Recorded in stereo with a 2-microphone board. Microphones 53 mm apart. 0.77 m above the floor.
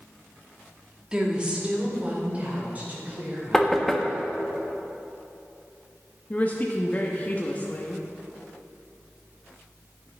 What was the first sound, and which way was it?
A woman speaking, 15° right (ahead or behind).